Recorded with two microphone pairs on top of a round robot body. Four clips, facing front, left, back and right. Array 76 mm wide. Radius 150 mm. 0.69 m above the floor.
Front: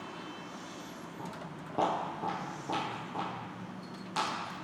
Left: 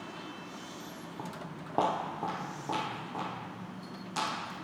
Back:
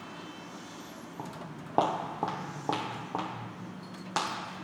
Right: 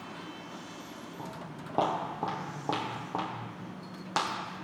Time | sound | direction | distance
1.2 | footsteps | 150° left | 1.2 m